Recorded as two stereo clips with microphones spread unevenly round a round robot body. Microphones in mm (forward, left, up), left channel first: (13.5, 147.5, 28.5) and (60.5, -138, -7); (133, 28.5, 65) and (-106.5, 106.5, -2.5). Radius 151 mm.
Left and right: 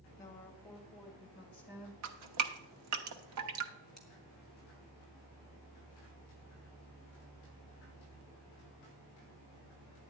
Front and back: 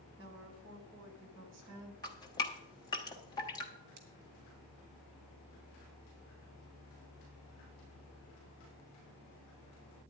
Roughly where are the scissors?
Behind.